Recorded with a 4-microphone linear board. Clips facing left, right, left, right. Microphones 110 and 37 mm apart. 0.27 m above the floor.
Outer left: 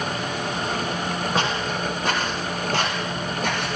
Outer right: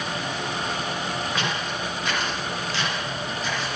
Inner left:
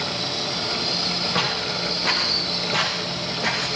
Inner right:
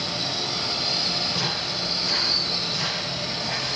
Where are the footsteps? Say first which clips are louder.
Outer left 4 dB, inner left 3 dB; 35° left (ahead or behind), 7.5 m; by 3.8 s 55° left (ahead or behind), 6.5 m.